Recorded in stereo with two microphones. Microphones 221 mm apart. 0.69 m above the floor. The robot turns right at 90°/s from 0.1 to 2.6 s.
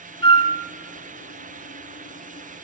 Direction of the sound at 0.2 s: 25° left (ahead or behind).